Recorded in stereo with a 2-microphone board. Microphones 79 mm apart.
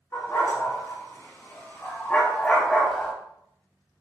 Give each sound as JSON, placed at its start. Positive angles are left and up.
{"t": 0.1, "sound": "a dog barking", "side_deg": 40, "distance_m": 3.5}